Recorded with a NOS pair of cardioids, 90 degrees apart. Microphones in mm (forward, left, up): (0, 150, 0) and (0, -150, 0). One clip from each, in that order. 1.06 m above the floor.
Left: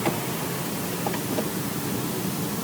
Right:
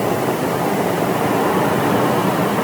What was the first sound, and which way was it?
Only background noise.